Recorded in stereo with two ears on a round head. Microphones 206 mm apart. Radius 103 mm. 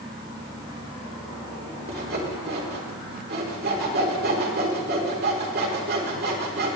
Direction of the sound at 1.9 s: 45° right (ahead or behind).